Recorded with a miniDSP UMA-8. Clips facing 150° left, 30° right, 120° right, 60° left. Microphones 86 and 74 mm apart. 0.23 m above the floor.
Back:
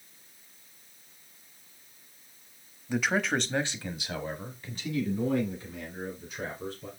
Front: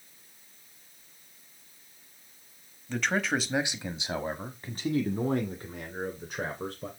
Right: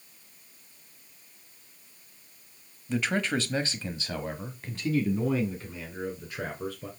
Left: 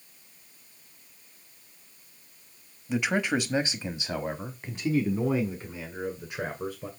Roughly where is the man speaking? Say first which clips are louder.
Back 1 dB, left 1 dB; left.